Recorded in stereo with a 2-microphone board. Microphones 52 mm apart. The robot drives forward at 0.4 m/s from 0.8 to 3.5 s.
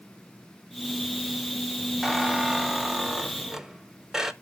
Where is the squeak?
5° right (ahead or behind), 1.0 m; by 4.3 s 10° right (ahead or behind), 0.7 m.